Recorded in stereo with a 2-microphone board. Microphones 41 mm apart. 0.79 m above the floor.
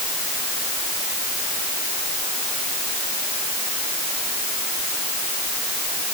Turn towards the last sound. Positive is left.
No sound to turn to.